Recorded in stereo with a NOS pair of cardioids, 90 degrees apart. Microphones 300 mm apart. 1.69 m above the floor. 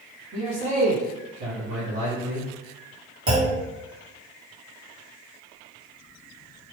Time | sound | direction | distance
0.3 | a man speaking | 65° right | 1.7 m
3.3 | a clunk | 45° right | 1.9 m